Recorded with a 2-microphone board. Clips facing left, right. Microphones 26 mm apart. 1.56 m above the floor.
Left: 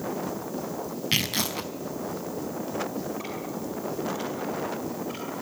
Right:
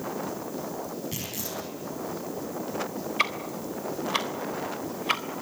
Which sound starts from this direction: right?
Ticking, at 3.2 s.